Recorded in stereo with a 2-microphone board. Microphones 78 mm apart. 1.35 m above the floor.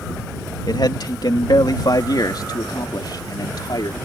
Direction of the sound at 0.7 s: 60° left (ahead or behind).